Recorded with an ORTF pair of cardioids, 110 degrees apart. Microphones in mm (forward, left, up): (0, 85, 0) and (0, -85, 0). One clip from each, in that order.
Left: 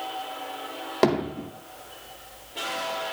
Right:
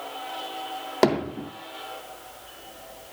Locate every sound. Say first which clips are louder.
1.0 s hammering: right 1 dB; 25° right, 2 m